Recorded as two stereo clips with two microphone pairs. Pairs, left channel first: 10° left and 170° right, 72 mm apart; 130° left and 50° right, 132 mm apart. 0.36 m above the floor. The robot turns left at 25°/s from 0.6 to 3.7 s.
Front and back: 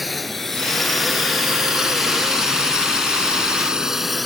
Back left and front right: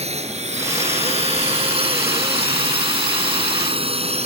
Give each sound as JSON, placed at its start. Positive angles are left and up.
{"t": 0.0, "sound": "a drone", "azimuth_deg": -80}